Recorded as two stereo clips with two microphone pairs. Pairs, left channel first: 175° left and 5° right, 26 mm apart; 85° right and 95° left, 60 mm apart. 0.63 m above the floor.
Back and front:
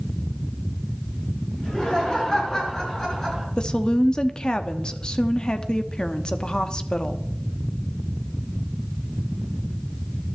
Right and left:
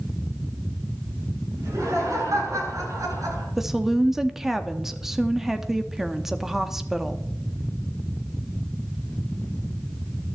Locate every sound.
1.6 s laughter: 115° left, 9 m; by 3.5 s 100° left, 8.5 m
3.6 s a woman speaking: 175° left, 1.0 m